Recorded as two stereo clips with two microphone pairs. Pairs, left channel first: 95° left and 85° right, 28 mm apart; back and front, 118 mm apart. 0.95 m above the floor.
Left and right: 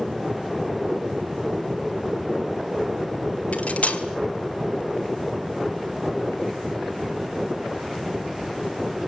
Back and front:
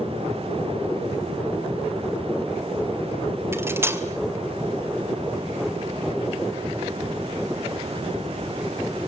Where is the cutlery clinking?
70° left, 2 m.